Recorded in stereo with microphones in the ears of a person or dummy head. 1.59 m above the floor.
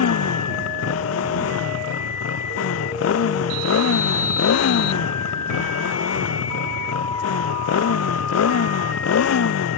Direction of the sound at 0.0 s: 75° left (ahead or behind).